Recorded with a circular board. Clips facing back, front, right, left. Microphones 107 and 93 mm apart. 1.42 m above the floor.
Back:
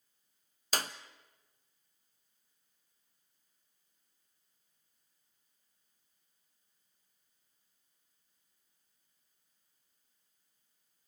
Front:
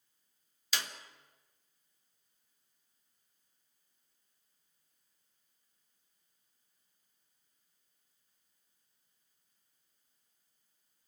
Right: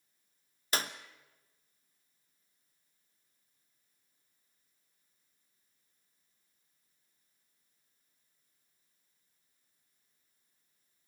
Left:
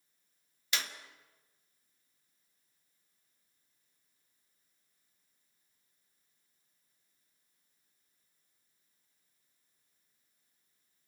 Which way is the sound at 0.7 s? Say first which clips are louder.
Back 4 dB, right 4 dB; 140° right.